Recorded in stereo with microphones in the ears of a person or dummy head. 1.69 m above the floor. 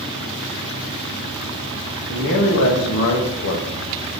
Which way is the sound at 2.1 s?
75° left (ahead or behind).